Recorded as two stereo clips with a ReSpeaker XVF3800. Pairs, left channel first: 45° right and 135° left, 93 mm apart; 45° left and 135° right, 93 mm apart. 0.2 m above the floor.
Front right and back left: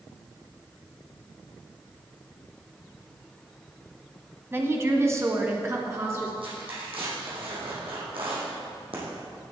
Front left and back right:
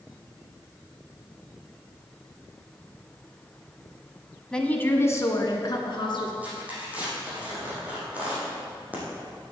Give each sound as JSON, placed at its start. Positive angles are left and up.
{"t": 4.5, "sound": "a woman speaking", "azimuth_deg": 115, "distance_m": 1.2}
{"t": 6.4, "sound": "tearing paper", "azimuth_deg": 150, "distance_m": 4.5}